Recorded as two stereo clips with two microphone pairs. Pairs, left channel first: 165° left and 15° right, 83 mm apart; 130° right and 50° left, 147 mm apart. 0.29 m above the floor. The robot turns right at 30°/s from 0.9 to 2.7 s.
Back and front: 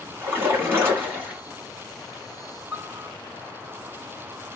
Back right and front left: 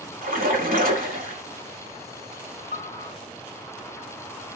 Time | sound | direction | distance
0.2 | a splash | 50° left | 1.5 m
2.7 | a piano | 65° left | 2.5 m